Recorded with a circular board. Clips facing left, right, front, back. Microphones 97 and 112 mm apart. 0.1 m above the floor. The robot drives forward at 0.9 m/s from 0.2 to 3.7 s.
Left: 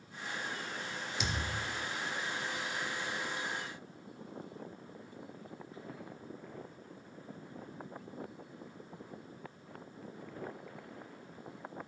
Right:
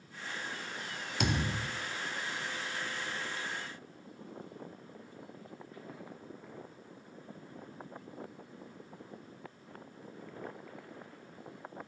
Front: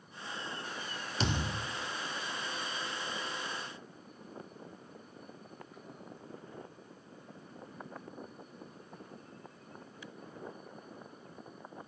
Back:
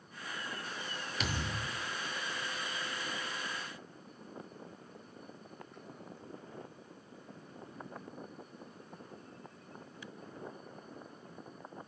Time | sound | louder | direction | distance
1.2 | a thud | right 6 dB, front 4 dB | 55° right | 0.6 m